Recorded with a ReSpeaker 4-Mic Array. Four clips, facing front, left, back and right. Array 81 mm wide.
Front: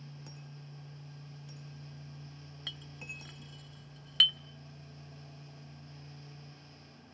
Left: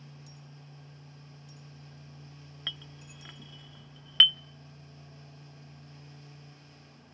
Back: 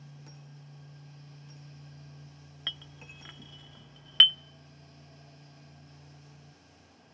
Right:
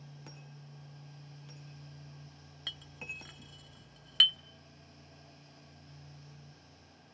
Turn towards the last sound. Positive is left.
turn(degrees=140)